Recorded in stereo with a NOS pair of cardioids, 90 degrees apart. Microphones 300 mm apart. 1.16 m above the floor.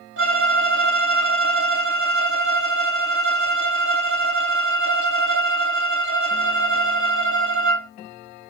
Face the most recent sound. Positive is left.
turn(degrees=-35)